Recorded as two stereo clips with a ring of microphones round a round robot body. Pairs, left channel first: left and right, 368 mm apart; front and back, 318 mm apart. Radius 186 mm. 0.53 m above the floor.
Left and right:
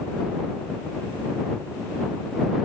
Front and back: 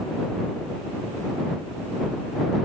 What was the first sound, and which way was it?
Only background noise.